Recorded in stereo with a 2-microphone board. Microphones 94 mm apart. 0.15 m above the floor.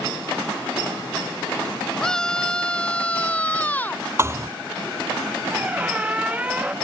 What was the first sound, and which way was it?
A scream, 5° left (ahead or behind).